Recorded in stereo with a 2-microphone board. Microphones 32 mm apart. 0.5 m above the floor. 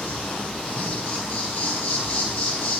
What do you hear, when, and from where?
0.0 s an insect: 70° left (ahead or behind), 5 m